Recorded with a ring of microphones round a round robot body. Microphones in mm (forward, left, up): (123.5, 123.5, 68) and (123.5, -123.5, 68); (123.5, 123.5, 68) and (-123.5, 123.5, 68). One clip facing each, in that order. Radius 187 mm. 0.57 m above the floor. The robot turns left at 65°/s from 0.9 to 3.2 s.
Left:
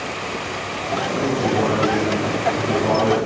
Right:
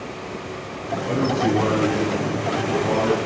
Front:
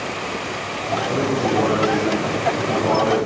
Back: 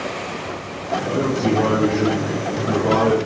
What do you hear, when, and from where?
1.1 s a man speaking: 95° right, 6 m; by 3.1 s 130° left, 6 m